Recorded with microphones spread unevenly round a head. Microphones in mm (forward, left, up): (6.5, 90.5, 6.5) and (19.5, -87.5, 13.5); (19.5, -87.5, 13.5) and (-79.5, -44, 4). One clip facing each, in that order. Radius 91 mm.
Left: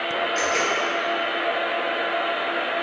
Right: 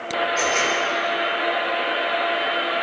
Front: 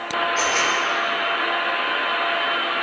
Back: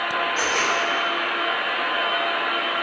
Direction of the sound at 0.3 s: 70° left.